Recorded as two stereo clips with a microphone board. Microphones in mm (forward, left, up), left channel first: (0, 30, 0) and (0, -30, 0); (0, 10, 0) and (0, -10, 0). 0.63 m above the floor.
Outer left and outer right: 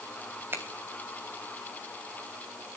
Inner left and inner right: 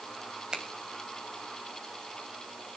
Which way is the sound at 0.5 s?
35° right (ahead or behind).